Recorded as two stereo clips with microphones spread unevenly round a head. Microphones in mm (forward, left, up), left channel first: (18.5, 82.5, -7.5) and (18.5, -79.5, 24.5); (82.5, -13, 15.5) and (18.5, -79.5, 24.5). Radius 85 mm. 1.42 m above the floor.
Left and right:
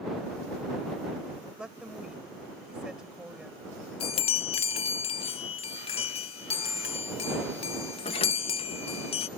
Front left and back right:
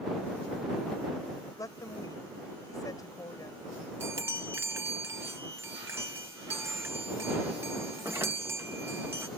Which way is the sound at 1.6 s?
5° right.